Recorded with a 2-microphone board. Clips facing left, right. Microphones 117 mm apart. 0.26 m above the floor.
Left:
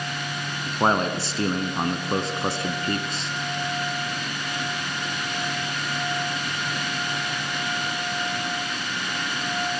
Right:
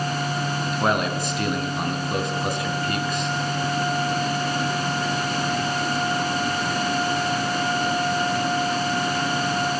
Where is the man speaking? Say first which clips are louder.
Left 2 dB; 30° left (ahead or behind), 2.5 m.